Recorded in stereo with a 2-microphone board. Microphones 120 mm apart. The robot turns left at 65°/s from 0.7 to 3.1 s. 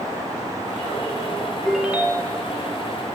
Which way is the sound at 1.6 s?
5° left.